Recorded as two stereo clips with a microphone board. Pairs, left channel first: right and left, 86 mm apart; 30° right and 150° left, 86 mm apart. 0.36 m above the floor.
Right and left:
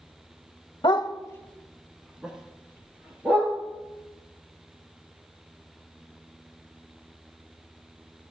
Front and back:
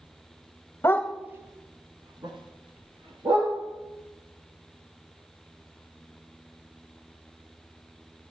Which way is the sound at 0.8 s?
85° right.